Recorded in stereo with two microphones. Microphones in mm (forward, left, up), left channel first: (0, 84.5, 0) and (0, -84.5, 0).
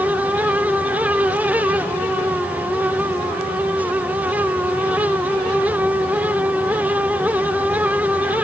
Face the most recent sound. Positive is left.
No sound to turn to.